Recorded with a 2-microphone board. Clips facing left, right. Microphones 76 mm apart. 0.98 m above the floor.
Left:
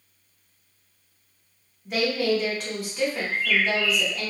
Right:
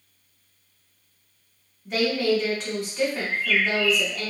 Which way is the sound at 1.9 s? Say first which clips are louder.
Right 1 dB; 5° left (ahead or behind).